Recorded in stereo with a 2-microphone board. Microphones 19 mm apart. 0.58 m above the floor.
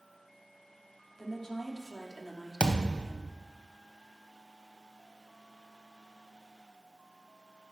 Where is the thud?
70° right (ahead or behind), 1.1 m.